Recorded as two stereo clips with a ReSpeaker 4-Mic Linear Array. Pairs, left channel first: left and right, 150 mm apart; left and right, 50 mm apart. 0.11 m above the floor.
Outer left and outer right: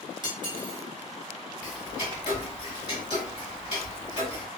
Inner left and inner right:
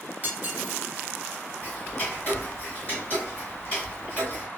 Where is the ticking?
30° left (ahead or behind), 1.9 m.